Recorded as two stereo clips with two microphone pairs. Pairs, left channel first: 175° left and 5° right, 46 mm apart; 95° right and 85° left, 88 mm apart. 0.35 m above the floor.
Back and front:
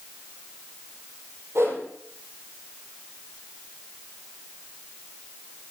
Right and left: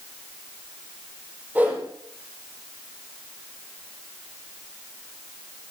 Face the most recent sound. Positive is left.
turn(degrees=15)